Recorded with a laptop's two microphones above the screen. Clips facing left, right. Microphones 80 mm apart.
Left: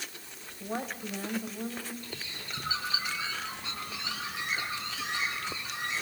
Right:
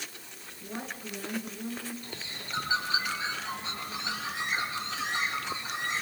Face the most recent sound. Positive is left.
turn(degrees=-30)  # may be behind; listen again after turning